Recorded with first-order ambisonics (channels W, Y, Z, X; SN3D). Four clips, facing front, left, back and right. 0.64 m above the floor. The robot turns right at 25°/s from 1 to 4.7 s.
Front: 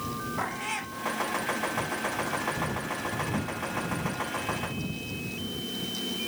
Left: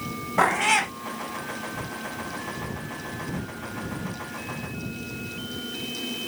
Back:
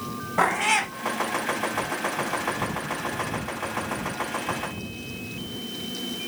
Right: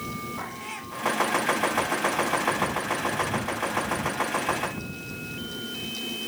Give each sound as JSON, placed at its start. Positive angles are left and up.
{"t": 0.4, "sound": "a cat meowing", "azimuth_deg": 125}